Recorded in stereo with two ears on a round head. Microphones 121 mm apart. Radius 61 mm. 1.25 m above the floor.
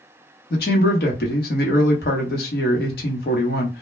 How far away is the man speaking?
About 1.1 m.